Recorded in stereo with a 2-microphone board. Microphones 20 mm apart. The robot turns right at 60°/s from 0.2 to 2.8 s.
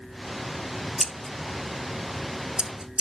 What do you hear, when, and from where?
1.0 s scissors: centre (ahead or behind), 0.8 m; by 3.0 s 65° right (ahead or behind), 0.8 m